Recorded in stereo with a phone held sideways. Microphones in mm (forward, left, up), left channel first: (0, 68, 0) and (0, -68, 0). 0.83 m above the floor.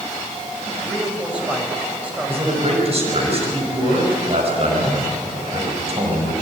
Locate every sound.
0.8 s a man speaking: 10° right (ahead or behind), 5 m
2.3 s a man speaking: 45° right (ahead or behind), 5 m